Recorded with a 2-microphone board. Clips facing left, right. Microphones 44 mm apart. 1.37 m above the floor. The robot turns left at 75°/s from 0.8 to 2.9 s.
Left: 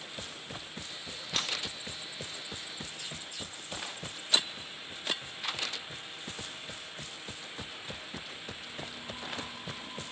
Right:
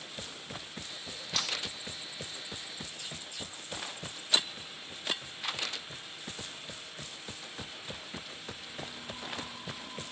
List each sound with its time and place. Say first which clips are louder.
1.4 s cutlery clinking: left 1 dB; 35° left (ahead or behind), 0.5 m